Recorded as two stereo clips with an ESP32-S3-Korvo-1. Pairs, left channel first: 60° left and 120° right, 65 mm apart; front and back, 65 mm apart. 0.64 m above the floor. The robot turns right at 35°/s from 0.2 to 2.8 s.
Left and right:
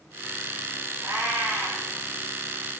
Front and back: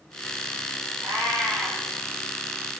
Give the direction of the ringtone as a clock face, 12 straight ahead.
I don't hear a ringtone.